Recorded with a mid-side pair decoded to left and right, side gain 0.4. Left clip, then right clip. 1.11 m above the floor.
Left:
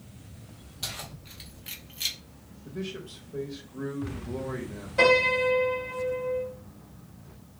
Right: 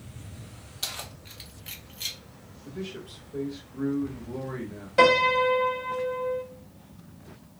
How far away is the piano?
About 1.2 m.